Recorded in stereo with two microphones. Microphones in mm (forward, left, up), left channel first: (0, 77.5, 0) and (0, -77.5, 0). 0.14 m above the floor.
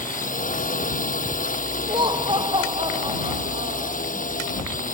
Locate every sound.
0.0 s a drone: 60° left (ahead or behind)
1.9 s laughter: 30° right (ahead or behind)